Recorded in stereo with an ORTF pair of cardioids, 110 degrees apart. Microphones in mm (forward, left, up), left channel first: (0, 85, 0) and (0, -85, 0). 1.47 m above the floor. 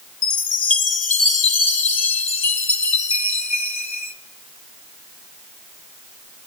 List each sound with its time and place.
0.2 s a chime: 40° left, 0.7 m